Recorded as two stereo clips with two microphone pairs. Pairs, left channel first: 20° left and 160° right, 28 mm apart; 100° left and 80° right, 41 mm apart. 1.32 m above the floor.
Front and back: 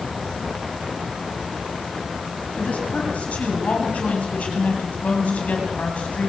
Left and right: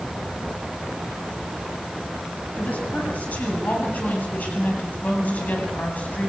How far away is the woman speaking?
About 9 m.